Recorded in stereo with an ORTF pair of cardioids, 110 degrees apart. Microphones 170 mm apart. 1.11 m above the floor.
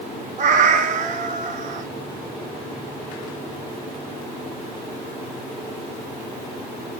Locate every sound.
0.4 s a cat meowing: 50° right, 0.9 m